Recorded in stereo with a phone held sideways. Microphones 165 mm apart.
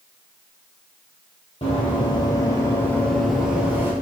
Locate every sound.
1.6 s running footsteps: 40° left (ahead or behind), 1.6 m; by 3.9 s 15° right (ahead or behind), 1.2 m